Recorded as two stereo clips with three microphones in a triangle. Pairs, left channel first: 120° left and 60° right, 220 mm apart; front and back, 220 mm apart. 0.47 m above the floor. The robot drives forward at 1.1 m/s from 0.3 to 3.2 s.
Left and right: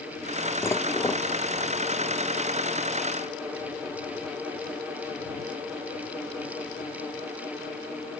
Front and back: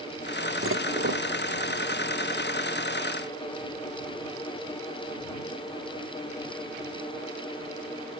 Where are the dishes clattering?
160° right; by 1.2 s 165° right.